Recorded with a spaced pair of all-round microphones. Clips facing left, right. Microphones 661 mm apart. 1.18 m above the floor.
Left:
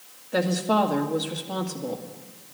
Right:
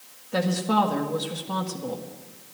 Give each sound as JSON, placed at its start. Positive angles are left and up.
{"t": 0.3, "sound": "a woman speaking", "side_deg": -30, "distance_m": 1.8}